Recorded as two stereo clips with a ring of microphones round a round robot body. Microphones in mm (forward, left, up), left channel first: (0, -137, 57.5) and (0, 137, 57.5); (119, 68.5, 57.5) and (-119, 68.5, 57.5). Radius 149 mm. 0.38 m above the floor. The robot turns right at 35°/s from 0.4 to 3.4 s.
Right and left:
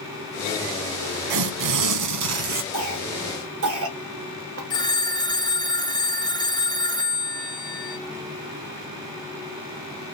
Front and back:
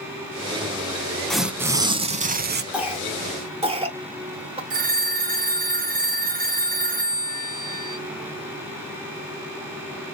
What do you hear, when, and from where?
1.3 s tearing paper: 90° left, 0.7 m; by 2.6 s 135° left, 0.7 m
2.7 s a cough: 90° left, 1.6 m; by 4.6 s 115° left, 1.6 m
4.7 s a phone ringing: 155° right, 0.8 m